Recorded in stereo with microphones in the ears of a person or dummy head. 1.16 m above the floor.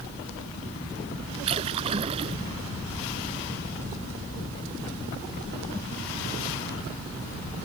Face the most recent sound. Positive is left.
turn(degrees=-30)  # may be behind; listen again after turning